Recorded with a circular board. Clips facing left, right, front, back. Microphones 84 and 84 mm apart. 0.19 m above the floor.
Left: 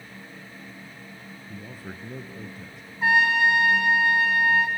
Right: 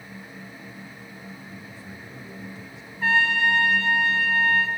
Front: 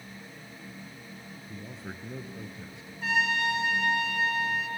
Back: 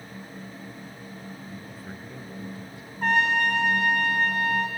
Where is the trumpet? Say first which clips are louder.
Left 1 dB, back 5 dB; 160° left, 2 m.